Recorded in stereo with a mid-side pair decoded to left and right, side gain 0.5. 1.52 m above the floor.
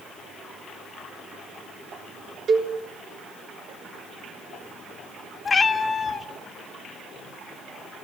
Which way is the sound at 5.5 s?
35° left.